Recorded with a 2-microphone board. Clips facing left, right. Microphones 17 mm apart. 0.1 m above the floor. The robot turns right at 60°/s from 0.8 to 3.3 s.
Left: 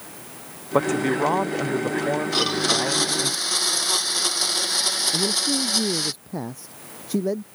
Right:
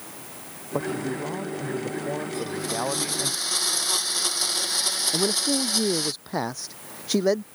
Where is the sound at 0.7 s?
70° left; by 3.3 s 140° right.